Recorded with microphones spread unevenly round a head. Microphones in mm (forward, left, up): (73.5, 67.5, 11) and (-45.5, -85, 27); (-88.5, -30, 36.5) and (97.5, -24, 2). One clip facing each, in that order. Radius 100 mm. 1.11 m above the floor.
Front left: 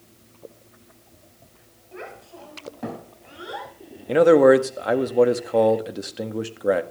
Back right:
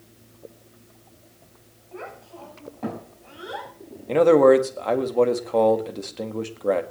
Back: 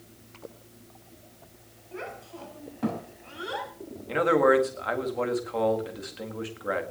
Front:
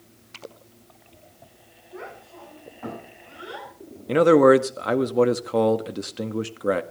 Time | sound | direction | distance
1.9 | a child speaking | 125° left | 6 m
4.1 | a man speaking | 30° right | 1.8 m